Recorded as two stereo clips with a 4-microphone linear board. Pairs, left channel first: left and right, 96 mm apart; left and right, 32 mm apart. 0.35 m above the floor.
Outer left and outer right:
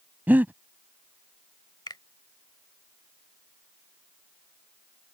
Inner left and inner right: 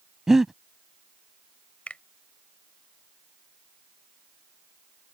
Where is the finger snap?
50° left (ahead or behind).